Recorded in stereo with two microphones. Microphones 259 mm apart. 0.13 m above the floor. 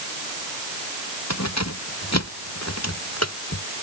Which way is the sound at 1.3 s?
85° left.